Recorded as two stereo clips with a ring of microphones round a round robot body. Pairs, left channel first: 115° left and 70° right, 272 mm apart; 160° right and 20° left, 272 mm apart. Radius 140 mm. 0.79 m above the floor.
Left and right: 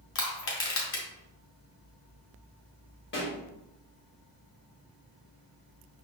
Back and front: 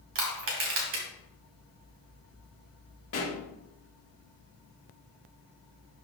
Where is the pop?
160° left, 1.5 m.